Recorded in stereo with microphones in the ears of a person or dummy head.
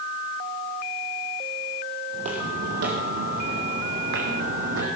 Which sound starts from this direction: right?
Footsteps, at 2.1 s.